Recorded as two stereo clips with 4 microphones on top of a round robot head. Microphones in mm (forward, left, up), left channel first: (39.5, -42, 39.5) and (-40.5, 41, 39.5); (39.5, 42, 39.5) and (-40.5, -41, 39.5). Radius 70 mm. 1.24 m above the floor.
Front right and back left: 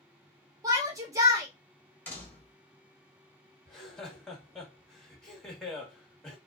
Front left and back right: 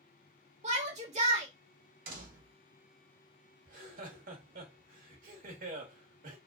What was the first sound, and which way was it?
A shout, 165° right.